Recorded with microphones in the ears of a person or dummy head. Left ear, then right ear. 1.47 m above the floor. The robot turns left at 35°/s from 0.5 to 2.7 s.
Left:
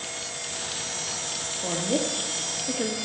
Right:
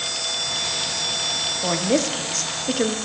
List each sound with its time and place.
1.6 s a woman speaking: 55° right, 0.8 m; by 3.0 s 95° right, 0.8 m